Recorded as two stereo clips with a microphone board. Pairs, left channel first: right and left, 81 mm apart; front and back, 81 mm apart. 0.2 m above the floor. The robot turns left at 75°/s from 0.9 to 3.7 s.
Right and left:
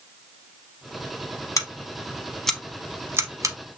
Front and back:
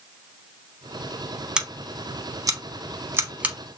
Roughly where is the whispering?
No whispering in this recording.